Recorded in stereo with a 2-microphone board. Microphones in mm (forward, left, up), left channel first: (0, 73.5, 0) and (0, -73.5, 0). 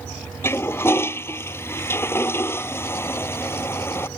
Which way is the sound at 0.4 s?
15° left (ahead or behind).